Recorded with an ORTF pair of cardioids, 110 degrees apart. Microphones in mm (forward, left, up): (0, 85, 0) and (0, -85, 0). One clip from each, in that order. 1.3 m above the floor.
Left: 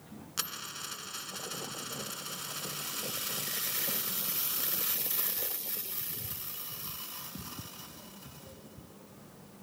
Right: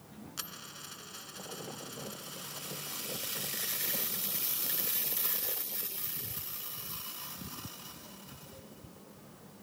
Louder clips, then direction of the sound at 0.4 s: Left 7 dB; 35° left.